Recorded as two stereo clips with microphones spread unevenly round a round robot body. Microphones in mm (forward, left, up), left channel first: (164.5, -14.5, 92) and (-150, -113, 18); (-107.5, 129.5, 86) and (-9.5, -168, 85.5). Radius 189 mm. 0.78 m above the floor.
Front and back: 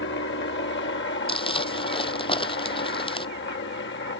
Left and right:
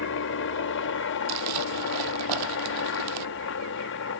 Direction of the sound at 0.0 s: 75° left.